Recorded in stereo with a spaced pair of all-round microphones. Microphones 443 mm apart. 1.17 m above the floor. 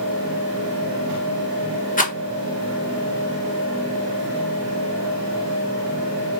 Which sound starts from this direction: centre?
A rattle, at 2.0 s.